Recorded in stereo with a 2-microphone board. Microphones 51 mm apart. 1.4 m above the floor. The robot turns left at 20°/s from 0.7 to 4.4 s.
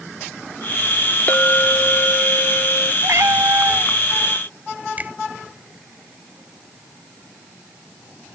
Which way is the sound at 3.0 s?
65° right (ahead or behind).